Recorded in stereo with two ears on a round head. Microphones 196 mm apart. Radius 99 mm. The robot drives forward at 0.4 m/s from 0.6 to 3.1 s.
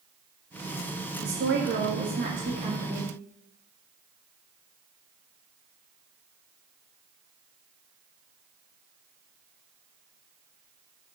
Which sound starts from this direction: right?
A woman speaking, at 1.2 s.